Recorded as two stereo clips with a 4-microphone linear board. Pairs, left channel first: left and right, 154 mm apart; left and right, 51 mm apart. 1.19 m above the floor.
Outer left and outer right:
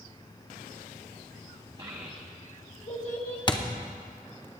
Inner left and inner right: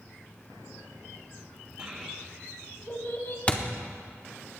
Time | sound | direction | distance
1.8 | a child speaking | 30° right (ahead or behind) | 1.1 m
3.5 | a thud | 30° left (ahead or behind) | 0.9 m